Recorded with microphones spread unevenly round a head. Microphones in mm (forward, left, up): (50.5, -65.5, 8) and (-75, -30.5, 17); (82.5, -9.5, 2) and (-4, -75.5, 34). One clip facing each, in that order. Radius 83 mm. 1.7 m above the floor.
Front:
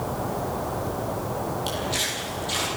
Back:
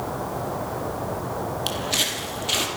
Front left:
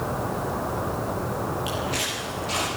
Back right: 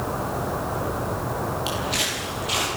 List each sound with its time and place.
1.7 s footsteps: 160° left, 3.5 m; by 2.7 s 145° left, 3.5 m